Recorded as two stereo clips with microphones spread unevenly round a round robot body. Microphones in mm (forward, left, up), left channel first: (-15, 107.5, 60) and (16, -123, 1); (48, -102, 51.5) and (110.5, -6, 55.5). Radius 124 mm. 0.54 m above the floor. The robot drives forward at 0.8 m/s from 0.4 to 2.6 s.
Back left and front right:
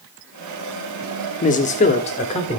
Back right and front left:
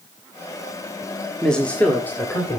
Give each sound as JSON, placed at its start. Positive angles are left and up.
{"t": 1.4, "sound": "a man speaking", "azimuth_deg": 155, "distance_m": 1.2}